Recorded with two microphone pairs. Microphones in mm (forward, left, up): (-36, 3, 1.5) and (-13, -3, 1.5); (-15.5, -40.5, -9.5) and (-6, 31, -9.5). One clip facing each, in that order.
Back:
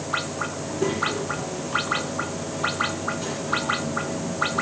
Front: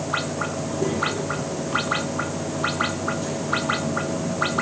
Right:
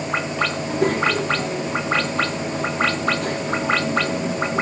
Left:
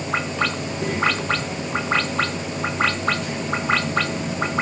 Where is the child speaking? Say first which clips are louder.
Even, right 3 dB; 130° right, 4.5 m.